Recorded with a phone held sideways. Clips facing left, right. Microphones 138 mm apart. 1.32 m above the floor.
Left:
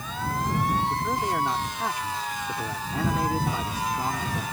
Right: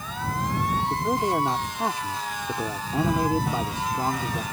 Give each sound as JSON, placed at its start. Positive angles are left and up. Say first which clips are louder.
{"t": 0.9, "sound": "a man speaking", "louder": "right 3 dB", "side_deg": -25}